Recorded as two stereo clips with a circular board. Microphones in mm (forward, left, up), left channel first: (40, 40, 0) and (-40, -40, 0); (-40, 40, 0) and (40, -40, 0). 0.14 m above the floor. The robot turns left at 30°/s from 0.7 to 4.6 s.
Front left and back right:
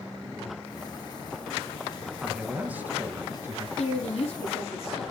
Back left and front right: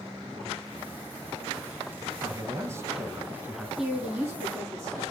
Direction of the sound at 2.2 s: 65° right.